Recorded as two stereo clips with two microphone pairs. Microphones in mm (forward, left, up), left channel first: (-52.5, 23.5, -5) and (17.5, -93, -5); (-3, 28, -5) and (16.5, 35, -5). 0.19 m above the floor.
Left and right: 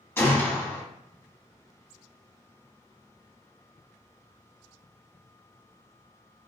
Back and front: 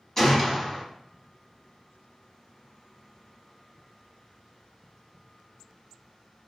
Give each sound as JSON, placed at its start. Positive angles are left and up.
{"t": 0.2, "sound": "a gunshot", "azimuth_deg": 170, "distance_m": 0.7}